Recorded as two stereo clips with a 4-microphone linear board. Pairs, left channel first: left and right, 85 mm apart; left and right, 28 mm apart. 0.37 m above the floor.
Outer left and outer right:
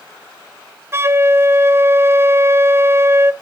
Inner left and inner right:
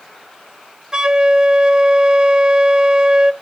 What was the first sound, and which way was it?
A flute, 30° right (ahead or behind).